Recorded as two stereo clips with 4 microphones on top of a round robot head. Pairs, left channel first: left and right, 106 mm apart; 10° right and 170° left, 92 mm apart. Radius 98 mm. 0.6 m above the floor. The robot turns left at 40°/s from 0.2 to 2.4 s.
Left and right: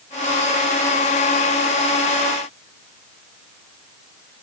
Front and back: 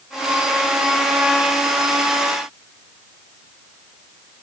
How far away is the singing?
I don't hear singing.